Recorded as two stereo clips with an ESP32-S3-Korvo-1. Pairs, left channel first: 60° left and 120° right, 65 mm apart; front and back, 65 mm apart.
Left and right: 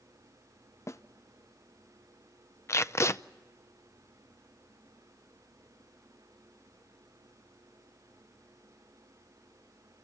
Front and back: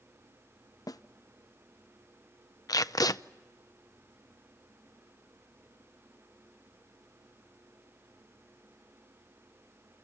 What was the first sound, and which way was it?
A snare drum, 20° left.